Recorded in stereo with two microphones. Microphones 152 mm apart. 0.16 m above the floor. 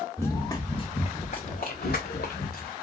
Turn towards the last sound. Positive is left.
turn(degrees=75)  # may be behind; listen again after turning